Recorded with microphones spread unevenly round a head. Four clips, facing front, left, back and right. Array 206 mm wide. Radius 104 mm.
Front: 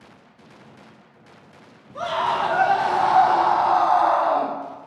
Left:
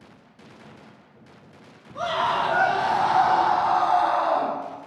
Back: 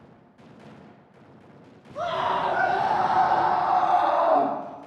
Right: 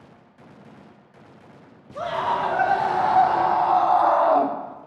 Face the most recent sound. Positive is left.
turn(degrees=-120)